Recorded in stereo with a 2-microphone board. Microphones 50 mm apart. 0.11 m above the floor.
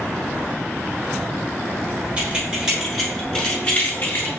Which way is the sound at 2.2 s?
20° right (ahead or behind).